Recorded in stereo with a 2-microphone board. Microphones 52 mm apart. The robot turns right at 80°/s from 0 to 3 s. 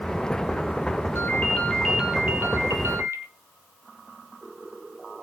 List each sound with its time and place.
1.1 s a ringtone: 125° left, 3.5 m; by 3.2 s 85° right, 3.5 m